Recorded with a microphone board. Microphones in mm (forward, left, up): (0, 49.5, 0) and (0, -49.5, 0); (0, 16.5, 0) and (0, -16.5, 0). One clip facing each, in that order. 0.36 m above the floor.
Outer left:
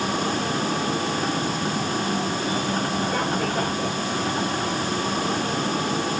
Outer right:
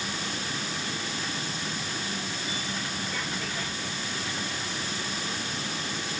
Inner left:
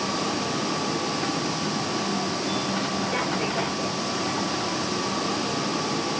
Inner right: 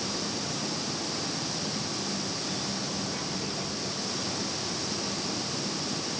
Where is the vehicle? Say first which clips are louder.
Outer left 11 dB, inner left 7 dB; 55° left (ahead or behind).